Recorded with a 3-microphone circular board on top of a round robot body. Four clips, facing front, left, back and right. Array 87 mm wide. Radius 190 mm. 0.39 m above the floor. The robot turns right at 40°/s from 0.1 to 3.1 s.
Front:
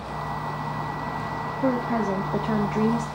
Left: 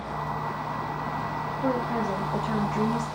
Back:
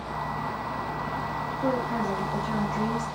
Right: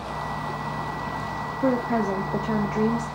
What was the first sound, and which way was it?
A woman speaking, 70° right.